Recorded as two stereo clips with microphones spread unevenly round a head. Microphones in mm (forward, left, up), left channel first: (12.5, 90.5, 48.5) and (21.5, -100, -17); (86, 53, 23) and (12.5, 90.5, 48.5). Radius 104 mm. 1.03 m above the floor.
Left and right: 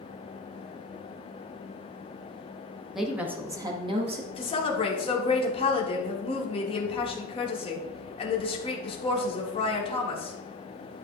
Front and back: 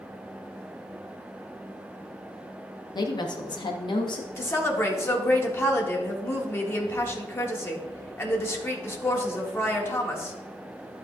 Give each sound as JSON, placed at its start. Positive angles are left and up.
{"t": 3.0, "sound": "a woman speaking", "azimuth_deg": -5, "distance_m": 1.3}
{"t": 4.4, "sound": "a woman speaking", "azimuth_deg": 25, "distance_m": 1.8}